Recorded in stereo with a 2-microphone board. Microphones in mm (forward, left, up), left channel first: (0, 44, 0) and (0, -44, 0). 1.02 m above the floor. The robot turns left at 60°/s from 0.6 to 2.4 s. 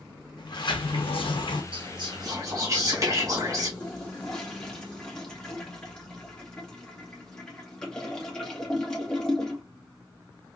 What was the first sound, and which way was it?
A sliding door, 120° left.